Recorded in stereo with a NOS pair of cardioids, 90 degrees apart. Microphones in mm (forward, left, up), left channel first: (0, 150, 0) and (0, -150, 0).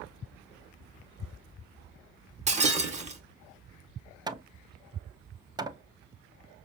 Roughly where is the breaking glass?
Ahead right.